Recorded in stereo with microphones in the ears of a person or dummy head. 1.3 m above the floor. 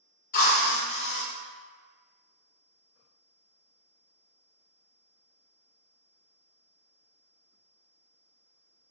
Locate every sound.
0.3 s a drill: 50° left (ahead or behind), 1.0 m